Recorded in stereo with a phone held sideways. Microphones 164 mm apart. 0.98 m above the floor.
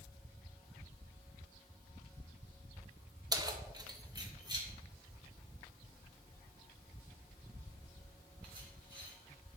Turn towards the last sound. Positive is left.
turn(degrees=-25)  # may be behind; listen again after turning